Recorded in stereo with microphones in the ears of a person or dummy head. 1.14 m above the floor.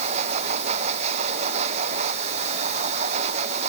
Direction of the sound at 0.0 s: 45° right (ahead or behind).